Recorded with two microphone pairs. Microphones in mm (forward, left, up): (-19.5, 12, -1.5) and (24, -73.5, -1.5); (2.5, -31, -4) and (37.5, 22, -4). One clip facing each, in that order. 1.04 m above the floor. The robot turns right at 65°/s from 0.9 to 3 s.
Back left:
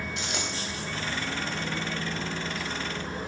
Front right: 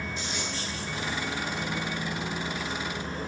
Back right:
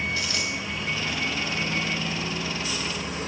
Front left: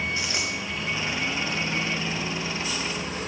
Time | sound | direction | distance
0.2 | a dropped coin | 125° left | 2.5 m